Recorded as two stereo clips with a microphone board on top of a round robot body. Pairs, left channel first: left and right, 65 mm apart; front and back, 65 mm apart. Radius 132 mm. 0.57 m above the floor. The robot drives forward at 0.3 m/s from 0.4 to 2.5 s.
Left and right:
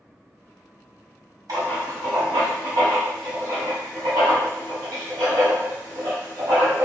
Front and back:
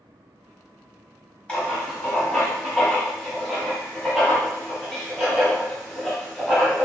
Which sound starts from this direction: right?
Writing, at 1.5 s.